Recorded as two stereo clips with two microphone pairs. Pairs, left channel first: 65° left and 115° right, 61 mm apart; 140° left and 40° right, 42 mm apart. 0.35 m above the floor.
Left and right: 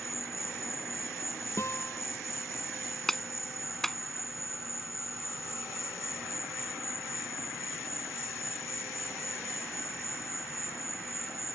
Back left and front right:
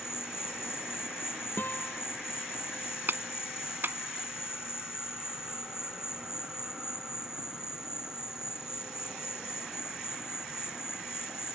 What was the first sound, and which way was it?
An insect, 30° left.